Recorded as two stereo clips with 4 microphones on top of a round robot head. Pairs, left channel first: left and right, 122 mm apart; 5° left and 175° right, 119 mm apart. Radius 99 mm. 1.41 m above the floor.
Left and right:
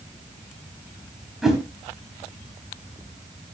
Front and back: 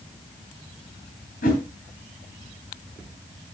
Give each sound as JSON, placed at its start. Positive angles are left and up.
{"t": 1.4, "sound": "a whoosh", "azimuth_deg": -5, "distance_m": 3.5}